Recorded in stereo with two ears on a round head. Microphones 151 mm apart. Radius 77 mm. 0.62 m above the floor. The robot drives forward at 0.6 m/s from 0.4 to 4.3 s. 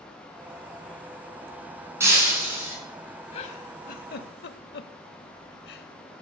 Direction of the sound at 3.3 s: 35° left (ahead or behind).